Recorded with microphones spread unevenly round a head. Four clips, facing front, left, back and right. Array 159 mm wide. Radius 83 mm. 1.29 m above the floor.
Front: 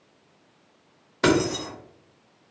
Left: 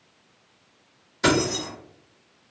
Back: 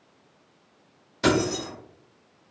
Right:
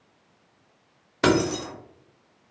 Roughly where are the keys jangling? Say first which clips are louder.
Right 1 dB, front 1 dB; ahead right.